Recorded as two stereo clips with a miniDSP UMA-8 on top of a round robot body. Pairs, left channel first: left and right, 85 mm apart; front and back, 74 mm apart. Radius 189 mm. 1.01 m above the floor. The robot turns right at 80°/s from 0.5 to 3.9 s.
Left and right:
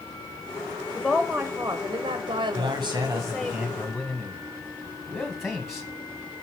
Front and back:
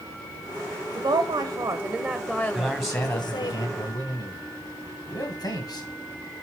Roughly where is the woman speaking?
Behind left.